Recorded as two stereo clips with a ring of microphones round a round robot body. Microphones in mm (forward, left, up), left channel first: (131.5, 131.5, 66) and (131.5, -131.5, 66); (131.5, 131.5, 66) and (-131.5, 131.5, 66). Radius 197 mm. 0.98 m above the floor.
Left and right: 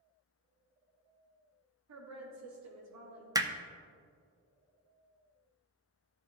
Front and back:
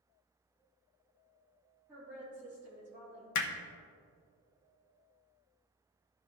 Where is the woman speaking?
95° right, 2.5 m.